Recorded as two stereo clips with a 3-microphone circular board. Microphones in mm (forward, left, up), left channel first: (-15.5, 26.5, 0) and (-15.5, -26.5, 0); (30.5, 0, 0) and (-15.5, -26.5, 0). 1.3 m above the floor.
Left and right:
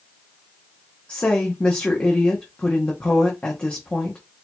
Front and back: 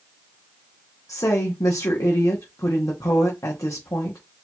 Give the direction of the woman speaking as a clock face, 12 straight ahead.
11 o'clock.